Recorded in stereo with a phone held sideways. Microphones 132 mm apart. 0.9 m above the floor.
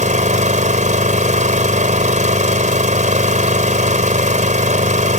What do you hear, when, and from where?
0.0 s an engine running: 70° right (ahead or behind)